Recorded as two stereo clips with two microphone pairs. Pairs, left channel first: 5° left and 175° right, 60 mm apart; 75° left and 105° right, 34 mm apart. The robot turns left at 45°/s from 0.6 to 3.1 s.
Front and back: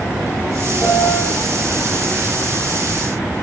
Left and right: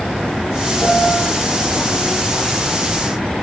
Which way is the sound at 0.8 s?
50° left.